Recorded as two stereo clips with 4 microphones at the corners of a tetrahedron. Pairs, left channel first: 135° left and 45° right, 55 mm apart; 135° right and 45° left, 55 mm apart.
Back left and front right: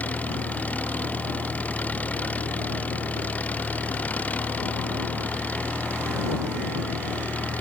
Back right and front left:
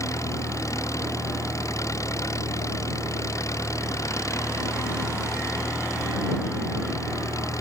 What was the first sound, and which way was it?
An engine running, 160° right.